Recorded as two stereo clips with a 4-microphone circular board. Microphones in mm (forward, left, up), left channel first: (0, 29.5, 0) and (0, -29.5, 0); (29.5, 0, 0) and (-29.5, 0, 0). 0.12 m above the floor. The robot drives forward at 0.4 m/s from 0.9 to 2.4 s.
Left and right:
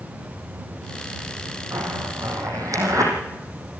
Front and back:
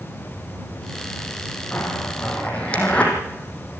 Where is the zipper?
65° right, 4.5 m; by 3.1 s 70° right, 4 m.